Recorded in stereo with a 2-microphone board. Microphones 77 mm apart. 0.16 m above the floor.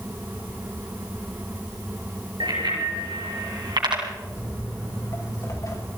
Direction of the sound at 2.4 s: 75° right (ahead or behind).